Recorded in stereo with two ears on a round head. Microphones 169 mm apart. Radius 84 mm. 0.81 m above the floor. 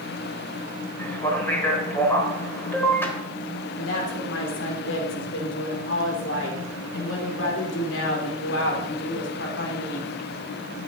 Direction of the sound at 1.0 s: 10° left (ahead or behind).